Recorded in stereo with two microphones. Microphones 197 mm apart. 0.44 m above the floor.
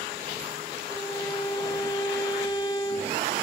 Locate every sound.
0.9 s a violin: 20° left (ahead or behind), 1.6 m